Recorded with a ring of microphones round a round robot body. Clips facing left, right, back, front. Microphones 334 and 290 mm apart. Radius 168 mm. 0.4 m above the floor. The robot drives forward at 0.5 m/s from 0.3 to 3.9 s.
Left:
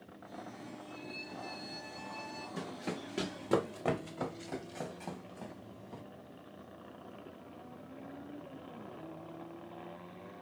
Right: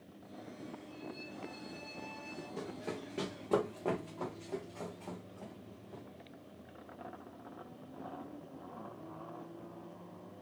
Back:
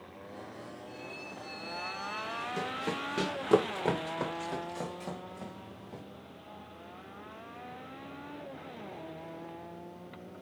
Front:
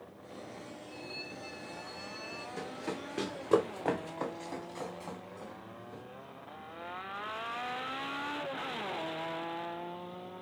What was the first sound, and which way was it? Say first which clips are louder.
A violin: even, even; 95° left.